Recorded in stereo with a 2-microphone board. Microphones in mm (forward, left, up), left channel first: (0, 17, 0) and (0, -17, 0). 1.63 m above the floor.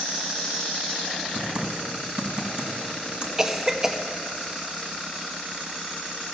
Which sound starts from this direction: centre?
A cough, at 3.4 s.